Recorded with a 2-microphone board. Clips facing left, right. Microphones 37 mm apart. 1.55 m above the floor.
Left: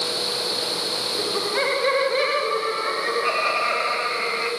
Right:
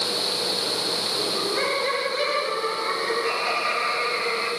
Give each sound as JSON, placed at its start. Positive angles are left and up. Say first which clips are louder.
{"t": 1.2, "sound": "laughter", "louder": "left 3 dB", "side_deg": 35, "distance_m": 5.0}